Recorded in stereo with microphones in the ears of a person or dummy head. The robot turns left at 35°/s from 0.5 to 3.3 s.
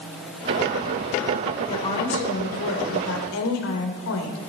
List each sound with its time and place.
1.7 s a woman speaking: 155° left, 3.5 m; by 4.5 s 95° left, 3.5 m